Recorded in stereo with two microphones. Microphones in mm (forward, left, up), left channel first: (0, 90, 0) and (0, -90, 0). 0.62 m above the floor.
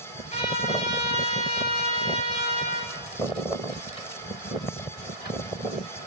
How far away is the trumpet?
About 4.5 m.